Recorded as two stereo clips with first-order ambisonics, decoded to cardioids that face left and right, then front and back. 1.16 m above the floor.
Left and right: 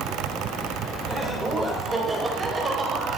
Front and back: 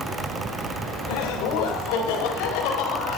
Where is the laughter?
5° left, 3.5 m; by 3.2 s 20° right, 5 m.